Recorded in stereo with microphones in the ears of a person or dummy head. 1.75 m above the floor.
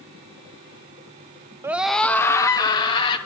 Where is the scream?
15° right (ahead or behind), 1.0 m; by 3.2 s 30° left (ahead or behind), 3 m.